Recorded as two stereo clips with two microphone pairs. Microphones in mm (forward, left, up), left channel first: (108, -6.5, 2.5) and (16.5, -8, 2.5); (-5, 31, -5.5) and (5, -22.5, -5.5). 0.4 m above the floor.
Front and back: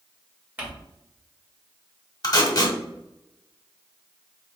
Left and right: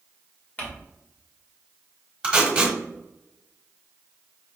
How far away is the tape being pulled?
About 1.3 m.